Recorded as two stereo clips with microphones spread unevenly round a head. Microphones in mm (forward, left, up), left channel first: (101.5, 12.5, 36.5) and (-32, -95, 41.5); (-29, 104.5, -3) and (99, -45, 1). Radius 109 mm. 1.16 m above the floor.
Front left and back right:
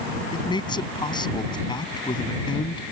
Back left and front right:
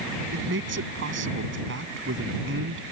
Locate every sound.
0.3 s a man speaking: 25° right